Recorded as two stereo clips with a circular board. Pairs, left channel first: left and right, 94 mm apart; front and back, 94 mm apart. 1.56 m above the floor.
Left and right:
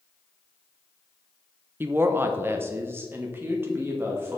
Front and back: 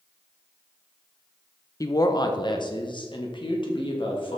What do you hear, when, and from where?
1.8 s a woman speaking: 30° right, 0.6 m; by 4.4 s 25° right, 2 m